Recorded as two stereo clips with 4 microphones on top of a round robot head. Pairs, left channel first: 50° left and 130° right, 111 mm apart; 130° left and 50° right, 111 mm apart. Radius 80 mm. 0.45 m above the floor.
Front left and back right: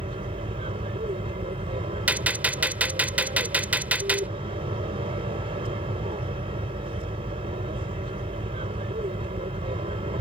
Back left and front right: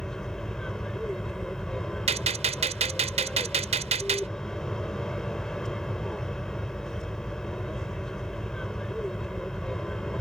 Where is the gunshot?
55° right.